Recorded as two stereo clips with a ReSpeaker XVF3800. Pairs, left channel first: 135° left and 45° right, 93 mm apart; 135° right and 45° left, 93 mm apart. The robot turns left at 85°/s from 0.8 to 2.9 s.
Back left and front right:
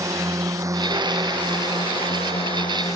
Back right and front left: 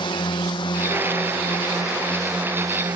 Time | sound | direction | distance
0.0 | a drone | 100° right | ?